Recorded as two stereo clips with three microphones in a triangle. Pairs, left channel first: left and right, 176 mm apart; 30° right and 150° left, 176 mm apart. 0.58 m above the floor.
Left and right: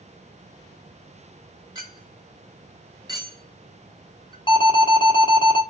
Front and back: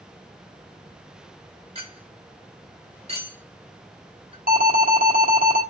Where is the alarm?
145° left, 1.4 m.